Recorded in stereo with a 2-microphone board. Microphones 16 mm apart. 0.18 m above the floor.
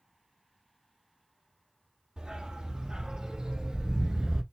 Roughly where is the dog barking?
Right.